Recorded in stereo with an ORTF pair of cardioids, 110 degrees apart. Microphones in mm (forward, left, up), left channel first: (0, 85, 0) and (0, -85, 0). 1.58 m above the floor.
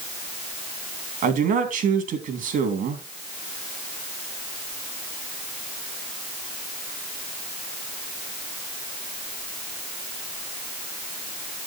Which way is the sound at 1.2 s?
55° right.